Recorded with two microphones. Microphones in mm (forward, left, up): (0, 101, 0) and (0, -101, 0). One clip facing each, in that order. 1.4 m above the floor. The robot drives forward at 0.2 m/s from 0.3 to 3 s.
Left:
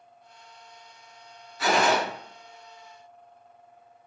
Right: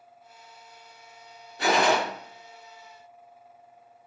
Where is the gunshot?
65° right (ahead or behind), 1.4 m; by 2.0 s 60° right (ahead or behind), 1.4 m.